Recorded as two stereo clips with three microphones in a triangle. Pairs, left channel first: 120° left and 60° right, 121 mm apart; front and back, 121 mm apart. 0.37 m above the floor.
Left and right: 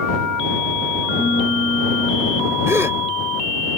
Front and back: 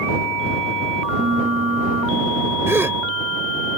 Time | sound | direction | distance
1.2 | a piano | 170° right | ?
2.7 | a gasp | 120° right | ?